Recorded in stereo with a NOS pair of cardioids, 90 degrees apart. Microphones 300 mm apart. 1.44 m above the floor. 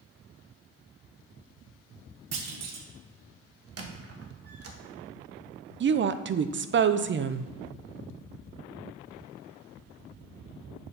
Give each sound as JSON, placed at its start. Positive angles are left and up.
{"t": 2.3, "sound": "a clunk", "azimuth_deg": -55, "distance_m": 1.2}
{"t": 3.8, "sound": "a squeak", "azimuth_deg": -50, "distance_m": 1.4}
{"t": 5.8, "sound": "a woman speaking", "azimuth_deg": -35, "distance_m": 0.6}